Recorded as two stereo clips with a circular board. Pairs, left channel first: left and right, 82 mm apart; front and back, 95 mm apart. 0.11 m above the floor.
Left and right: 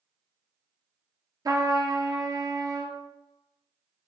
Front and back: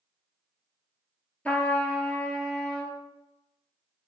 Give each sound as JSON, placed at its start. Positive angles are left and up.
{"t": 1.4, "sound": "a trumpet", "azimuth_deg": -70, "distance_m": 0.7}